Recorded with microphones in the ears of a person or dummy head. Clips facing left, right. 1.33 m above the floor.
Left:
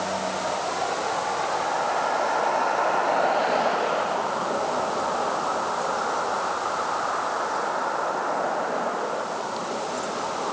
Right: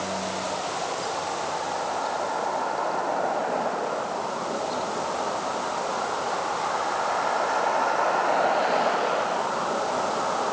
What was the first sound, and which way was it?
Only background noise.